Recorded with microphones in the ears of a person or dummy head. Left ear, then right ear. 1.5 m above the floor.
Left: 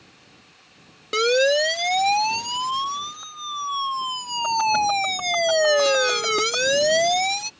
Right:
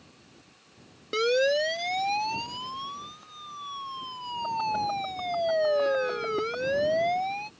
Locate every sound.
1.1 s a siren: 25° left (ahead or behind); by 7.5 s 70° left (ahead or behind)